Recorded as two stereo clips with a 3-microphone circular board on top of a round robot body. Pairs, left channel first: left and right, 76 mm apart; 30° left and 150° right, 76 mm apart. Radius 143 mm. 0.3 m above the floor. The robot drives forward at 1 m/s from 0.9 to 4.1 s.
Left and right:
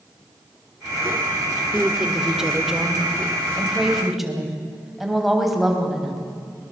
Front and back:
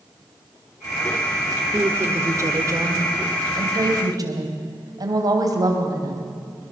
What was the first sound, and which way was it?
A woman speaking, 165° right.